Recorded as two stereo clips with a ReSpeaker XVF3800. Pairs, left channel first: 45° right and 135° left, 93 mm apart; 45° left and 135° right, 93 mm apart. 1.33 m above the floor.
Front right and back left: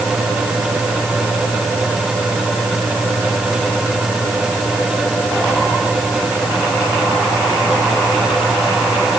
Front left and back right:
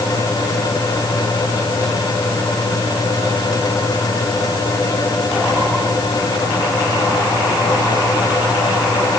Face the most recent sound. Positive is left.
No sound to turn to.